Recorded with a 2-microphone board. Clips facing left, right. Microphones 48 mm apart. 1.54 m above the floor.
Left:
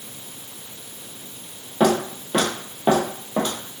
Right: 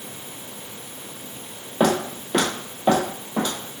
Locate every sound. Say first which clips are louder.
1.8 s footsteps: left 1 dB; 10° right (ahead or behind), 1.9 m; by 3.5 s 30° left (ahead or behind), 1.8 m